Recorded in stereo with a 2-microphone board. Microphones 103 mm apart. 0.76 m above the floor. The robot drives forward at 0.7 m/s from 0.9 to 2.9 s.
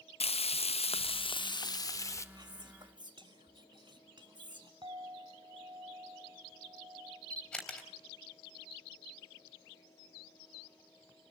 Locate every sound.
0.2 s frying: 80° left, 0.6 m; by 2.2 s 30° left (ahead or behind), 1.2 m
2.4 s whispering: 45° right (ahead or behind), 1.5 m; by 4.7 s 50° right (ahead or behind), 1.4 m
4.8 s a clink: 55° right (ahead or behind), 2.5 m
7.3 s a camera shutter: 5° left (ahead or behind), 3 m